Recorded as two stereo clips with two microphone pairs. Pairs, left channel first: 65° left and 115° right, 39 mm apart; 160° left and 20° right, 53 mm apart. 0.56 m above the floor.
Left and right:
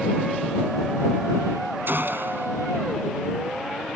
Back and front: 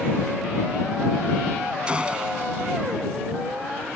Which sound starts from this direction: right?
A gunshot, at 1.9 s.